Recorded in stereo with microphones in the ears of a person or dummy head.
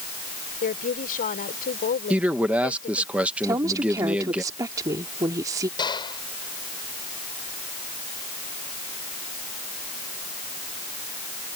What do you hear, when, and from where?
0.6 s a woman speaking: 45° left (ahead or behind)
2.1 s a man speaking: 5° right (ahead or behind)
3.4 s a woman speaking: 20° right (ahead or behind)
5.8 s a gunshot: 20° left (ahead or behind)